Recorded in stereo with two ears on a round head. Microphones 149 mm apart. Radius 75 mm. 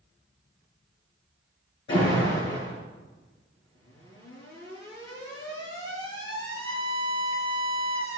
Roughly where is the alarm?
Left.